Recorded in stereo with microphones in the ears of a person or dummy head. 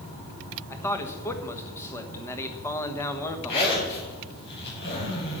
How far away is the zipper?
About 5.5 m.